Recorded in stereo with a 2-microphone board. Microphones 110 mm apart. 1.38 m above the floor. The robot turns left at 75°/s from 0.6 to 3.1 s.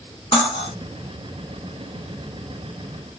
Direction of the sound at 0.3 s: 55° left (ahead or behind).